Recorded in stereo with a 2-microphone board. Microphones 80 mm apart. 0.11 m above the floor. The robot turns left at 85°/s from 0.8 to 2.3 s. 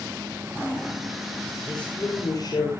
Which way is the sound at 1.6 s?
Straight behind.